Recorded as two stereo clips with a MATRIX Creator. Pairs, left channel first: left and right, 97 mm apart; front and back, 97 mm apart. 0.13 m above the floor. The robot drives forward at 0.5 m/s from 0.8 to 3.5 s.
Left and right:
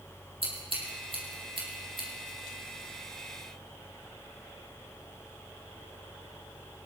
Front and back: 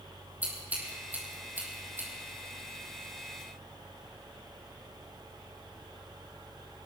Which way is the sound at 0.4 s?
110° right.